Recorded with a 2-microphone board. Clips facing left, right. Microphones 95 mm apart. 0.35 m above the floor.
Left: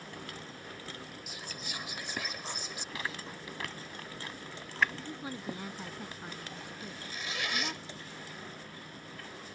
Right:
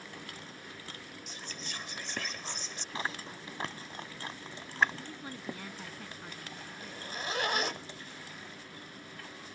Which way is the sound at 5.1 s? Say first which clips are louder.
Left 2 dB; 15° left (ahead or behind).